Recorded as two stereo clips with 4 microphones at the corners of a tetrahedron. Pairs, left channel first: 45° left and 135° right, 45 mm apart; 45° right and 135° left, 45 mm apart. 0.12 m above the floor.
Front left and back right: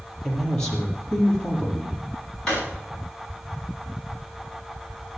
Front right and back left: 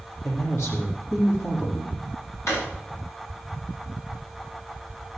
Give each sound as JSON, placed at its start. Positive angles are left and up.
{"t": 0.2, "sound": "a man speaking", "azimuth_deg": -35, "distance_m": 4.5}
{"t": 2.5, "sound": "a drawer", "azimuth_deg": -30, "distance_m": 8.0}